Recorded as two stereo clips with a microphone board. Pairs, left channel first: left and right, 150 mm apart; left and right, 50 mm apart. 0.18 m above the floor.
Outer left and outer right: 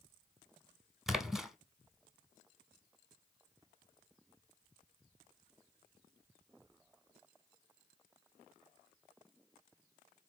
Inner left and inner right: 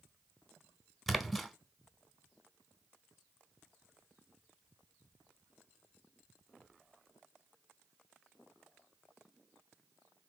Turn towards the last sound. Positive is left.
turn(degrees=0)  # may be behind; listen again after turning